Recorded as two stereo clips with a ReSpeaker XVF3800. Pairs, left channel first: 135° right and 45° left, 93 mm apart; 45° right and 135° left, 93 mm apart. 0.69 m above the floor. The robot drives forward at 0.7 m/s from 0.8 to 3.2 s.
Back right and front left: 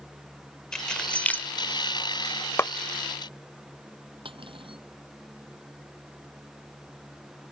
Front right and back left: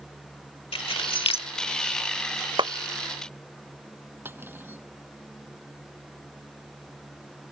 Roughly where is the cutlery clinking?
Ahead left.